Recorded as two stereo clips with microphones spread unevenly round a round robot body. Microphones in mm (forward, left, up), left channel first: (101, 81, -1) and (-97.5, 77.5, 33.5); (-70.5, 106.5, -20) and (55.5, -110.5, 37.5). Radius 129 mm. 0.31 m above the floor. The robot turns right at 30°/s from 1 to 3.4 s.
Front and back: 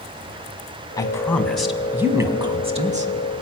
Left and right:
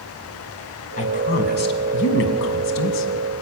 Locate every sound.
1.0 s a woman speaking: 70° left, 2.0 m; by 3.1 s 130° left, 2.0 m